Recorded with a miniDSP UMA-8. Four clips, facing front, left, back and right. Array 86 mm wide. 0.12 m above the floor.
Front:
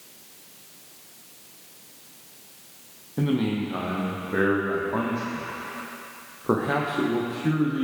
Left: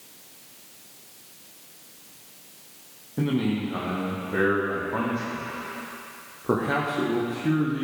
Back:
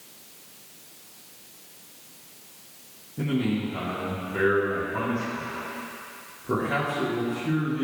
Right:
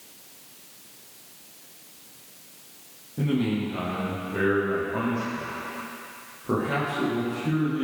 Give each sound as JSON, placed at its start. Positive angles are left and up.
{"t": 3.2, "sound": "a man speaking", "azimuth_deg": 30, "distance_m": 4.5}